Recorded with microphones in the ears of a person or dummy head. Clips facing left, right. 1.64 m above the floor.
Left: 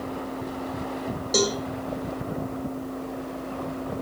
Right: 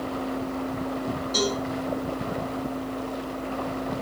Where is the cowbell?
65° left (ahead or behind), 7 m.